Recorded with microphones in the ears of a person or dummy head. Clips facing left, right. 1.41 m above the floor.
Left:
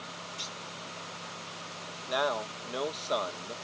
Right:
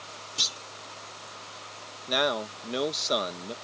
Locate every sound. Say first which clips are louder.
0.4 s a clunk: even; 85° right
2.1 s a man speaking: right 3 dB; 35° right (ahead or behind)